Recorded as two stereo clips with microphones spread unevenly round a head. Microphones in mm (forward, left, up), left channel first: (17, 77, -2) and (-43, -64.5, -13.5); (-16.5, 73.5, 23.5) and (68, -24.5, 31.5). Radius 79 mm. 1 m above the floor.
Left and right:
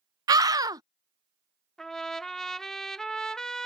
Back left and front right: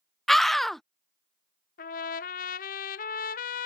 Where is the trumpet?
155° left.